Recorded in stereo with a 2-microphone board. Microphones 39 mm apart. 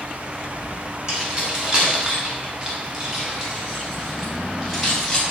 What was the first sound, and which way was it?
Keys jangling, 20° right (ahead or behind).